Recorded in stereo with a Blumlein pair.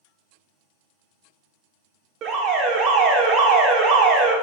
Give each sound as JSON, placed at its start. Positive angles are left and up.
{"t": 2.2, "sound": "an alarm", "azimuth_deg": -30, "distance_m": 0.6}